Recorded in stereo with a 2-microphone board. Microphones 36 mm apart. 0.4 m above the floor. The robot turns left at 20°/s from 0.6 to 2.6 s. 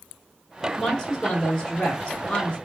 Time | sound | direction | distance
0.8 | a woman speaking | 15° left (ahead or behind) | 1.5 m